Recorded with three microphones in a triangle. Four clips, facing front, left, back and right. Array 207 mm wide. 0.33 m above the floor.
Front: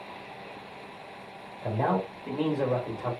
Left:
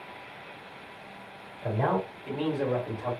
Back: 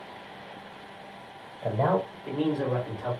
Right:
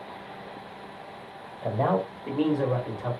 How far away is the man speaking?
About 1.4 m.